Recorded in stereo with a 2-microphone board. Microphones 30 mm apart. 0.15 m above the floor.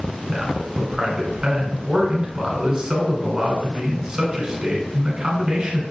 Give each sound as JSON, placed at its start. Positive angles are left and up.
{"t": 0.3, "sound": "a man speaking", "side_deg": -25, "distance_m": 1.1}